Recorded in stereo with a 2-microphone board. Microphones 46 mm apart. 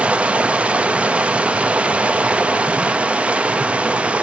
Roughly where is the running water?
Right.